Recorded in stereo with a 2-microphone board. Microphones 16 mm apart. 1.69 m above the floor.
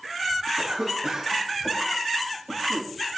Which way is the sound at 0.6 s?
85° right.